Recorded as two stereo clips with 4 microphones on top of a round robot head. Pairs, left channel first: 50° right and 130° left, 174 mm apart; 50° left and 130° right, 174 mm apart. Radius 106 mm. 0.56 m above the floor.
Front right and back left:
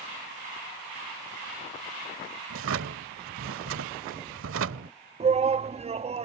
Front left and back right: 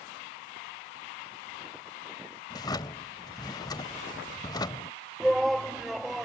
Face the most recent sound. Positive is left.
turn(degrees=140)